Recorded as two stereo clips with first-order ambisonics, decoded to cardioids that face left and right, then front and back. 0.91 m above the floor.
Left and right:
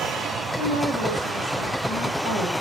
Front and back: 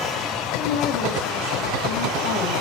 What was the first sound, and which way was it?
A woman speaking, 20° right.